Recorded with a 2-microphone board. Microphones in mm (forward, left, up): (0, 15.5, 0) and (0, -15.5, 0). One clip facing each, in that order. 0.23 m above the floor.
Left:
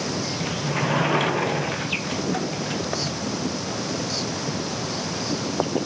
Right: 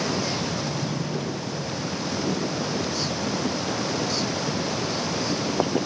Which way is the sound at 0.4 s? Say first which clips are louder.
Left 3 dB; 65° left (ahead or behind).